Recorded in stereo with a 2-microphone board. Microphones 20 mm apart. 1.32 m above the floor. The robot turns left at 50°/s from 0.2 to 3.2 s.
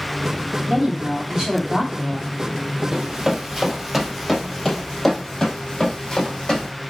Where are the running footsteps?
30° right (ahead or behind), 1.4 m; by 6.7 s 50° left (ahead or behind), 2 m.